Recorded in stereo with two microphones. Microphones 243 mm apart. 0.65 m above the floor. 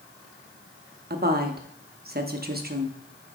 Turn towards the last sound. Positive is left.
turn(degrees=-40)  # may be behind; listen again after turning